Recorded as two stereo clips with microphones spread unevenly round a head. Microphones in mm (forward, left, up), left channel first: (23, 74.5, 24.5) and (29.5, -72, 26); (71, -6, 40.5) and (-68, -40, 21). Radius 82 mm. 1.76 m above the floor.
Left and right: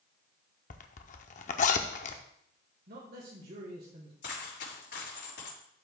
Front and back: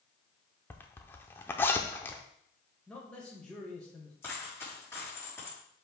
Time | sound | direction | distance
0.7 | a zipper | 80° left | 0.6 m
2.9 | a man speaking | 70° right | 1.7 m
4.2 | a dropped coin | 90° left | 4.5 m